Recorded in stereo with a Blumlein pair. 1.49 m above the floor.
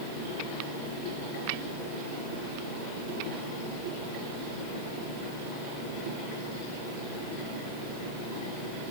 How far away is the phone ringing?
I don't hear a phone ringing.